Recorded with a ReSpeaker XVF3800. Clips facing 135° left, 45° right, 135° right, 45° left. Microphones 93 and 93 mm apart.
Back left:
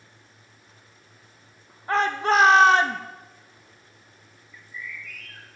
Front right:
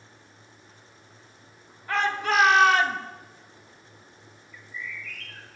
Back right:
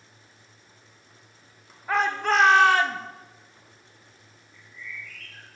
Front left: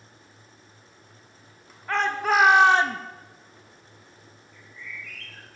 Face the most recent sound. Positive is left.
turn(degrees=55)